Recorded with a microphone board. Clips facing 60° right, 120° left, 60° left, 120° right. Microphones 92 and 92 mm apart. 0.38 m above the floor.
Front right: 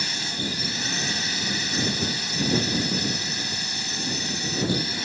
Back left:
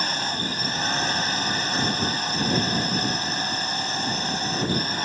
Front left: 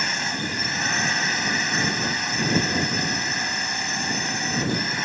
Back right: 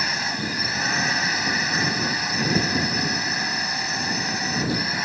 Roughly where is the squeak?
No squeak in this recording.